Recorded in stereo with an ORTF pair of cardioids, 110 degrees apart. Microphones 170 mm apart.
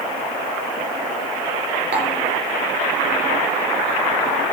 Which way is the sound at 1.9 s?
70° right.